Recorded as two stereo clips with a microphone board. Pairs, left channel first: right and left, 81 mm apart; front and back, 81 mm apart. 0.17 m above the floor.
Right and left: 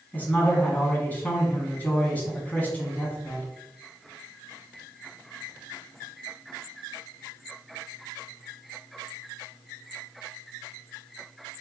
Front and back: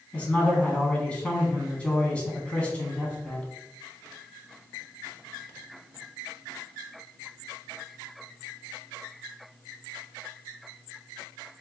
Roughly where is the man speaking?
Ahead right.